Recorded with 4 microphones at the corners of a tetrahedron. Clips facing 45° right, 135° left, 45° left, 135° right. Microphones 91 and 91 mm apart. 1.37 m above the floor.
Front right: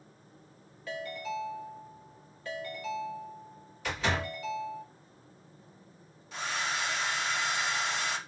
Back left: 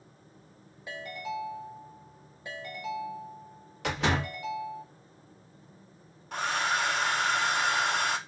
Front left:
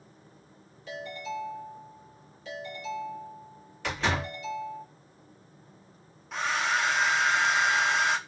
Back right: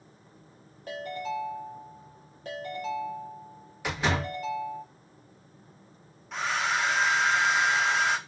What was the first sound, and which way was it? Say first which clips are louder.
A ringtone: even, back right 3 dB; 155° right.